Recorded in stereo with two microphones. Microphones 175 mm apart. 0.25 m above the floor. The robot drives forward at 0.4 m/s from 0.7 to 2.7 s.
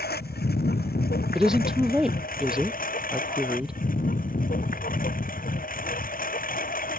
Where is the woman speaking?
5° right (ahead or behind).